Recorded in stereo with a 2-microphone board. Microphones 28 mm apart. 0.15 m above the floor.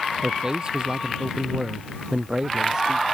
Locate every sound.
0.2 s a man speaking: 30° right (ahead or behind)